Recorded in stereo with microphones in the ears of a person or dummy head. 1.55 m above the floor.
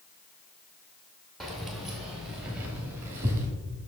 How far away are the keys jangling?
About 1.8 m.